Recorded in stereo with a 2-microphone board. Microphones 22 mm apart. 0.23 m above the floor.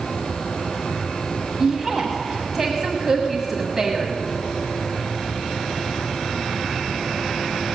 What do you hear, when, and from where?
1.6 s a woman speaking: 10° right (ahead or behind), 1.3 m